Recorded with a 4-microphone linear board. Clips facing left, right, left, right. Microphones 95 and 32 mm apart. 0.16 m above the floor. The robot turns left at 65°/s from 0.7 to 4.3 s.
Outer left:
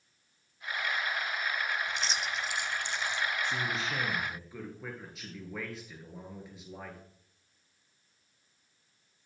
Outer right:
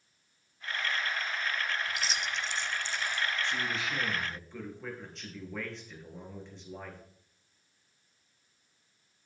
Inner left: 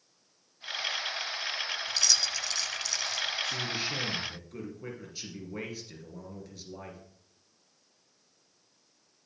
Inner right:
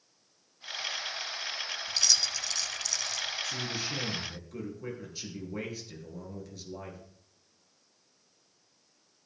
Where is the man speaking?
65° left, 2.5 m; by 7.0 s 5° left, 2.5 m.